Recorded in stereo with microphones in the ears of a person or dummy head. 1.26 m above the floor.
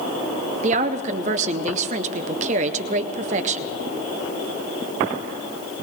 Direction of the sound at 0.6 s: 35° right (ahead or behind).